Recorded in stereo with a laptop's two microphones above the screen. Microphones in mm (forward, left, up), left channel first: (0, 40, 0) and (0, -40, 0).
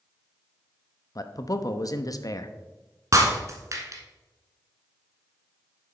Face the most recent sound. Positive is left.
turn(degrees=-40)  # may be behind; listen again after turning